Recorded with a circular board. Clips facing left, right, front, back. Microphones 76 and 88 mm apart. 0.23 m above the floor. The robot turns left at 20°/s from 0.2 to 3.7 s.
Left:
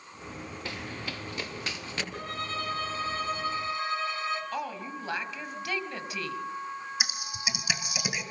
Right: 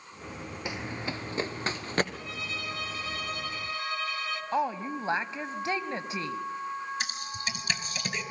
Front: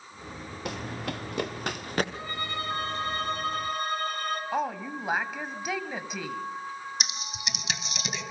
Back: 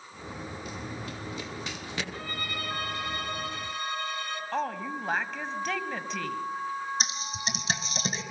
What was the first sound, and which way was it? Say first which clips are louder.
Running footsteps: right 4 dB, front 4 dB; 15° right.